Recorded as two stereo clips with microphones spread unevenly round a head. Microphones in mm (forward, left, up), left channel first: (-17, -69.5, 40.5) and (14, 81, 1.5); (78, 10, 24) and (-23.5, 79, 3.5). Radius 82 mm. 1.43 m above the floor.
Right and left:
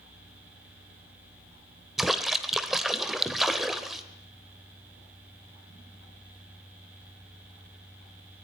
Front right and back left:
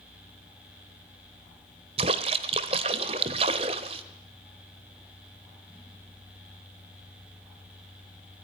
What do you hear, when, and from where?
2.0 s a splash: 175° right, 1.4 m